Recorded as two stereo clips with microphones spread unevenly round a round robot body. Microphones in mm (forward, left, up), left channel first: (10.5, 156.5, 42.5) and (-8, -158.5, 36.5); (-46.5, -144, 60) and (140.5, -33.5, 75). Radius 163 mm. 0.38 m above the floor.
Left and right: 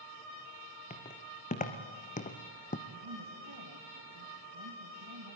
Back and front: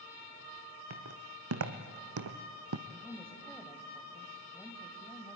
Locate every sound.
0.9 s footsteps: 15° left, 2 m; by 2.8 s 20° left, 1.1 m
2.9 s a woman speaking: 65° right, 2.5 m